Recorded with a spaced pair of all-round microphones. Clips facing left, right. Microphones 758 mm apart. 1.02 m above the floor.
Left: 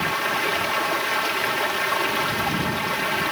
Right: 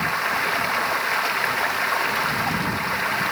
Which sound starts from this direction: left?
Running water, at 0.0 s.